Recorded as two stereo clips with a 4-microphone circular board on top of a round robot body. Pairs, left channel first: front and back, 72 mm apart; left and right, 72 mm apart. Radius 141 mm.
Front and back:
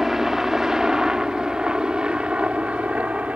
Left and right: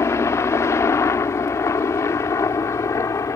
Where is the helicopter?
95° left; by 3.4 s 115° left.